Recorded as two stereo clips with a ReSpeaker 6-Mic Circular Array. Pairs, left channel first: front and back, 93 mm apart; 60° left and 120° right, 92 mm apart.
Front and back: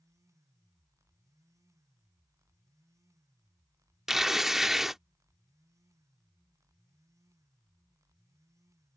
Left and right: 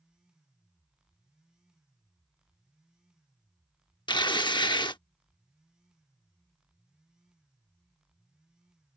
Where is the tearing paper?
95° left.